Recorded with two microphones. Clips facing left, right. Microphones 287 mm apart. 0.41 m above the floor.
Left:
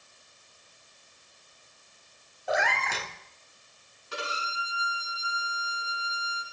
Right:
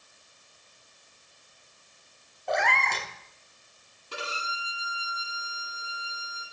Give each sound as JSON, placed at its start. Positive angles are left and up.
{"t": 2.5, "sound": "a cat meowing", "side_deg": 5, "distance_m": 0.5}
{"t": 4.1, "sound": "a violin", "side_deg": -40, "distance_m": 1.8}